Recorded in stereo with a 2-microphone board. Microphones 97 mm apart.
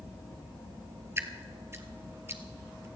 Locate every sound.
1.2 s dripping: 30° right (ahead or behind), 1.1 m